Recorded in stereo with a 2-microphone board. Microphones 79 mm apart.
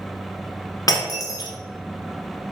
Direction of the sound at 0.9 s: 50° left (ahead or behind).